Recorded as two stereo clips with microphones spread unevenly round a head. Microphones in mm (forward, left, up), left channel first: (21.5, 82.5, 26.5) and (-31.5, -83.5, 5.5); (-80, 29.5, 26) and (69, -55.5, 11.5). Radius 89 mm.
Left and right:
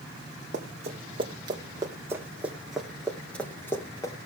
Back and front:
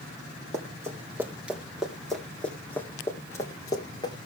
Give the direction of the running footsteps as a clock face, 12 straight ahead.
3 o'clock.